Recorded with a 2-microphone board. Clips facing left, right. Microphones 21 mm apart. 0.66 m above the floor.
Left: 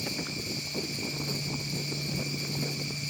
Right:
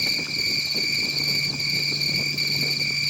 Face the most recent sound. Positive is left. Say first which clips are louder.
# right 10 dB
turn(degrees=-60)  # may be behind; listen again after turning